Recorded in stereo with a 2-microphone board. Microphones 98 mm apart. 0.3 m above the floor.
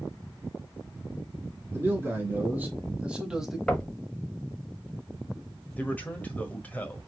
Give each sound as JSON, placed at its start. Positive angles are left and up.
{"t": 1.7, "sound": "a man speaking", "side_deg": -25, "distance_m": 2.5}
{"t": 3.7, "sound": "knocking", "side_deg": 10, "distance_m": 1.1}
{"t": 5.8, "sound": "a man speaking", "side_deg": 15, "distance_m": 1.2}